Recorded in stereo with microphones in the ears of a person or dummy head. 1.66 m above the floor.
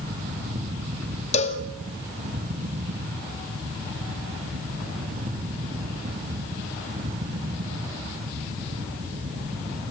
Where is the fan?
45° right (ahead or behind), 3 m.